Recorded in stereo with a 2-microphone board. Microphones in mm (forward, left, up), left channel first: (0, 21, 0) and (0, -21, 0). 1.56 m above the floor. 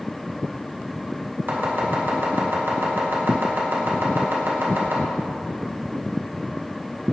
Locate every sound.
1.5 s chopping: 55° right (ahead or behind), 1.7 m